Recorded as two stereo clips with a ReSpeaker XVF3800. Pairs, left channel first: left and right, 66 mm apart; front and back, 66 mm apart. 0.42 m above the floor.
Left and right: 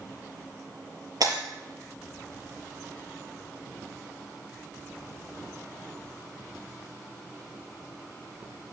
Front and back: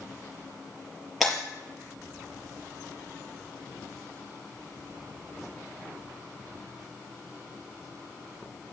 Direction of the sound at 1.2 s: 95° right.